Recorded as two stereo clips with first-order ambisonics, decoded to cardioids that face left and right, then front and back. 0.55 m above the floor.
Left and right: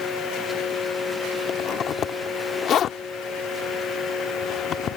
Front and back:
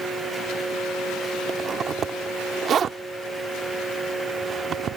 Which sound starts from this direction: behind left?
A zipper, at 1.5 s.